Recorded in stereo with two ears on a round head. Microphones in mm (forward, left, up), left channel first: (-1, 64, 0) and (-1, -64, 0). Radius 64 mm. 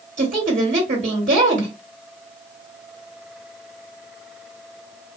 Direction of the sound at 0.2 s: 50° right (ahead or behind).